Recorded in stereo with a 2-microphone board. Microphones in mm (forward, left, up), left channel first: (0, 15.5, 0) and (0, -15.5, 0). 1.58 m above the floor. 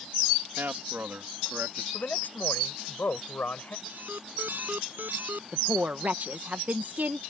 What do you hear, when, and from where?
0.6 s a man speaking: 85° right; by 1.8 s 75° right (ahead or behind)
1.9 s a man speaking: 60° left (ahead or behind)
3.9 s an alarm: 70° right (ahead or behind)
5.5 s a woman speaking: 55° right (ahead or behind)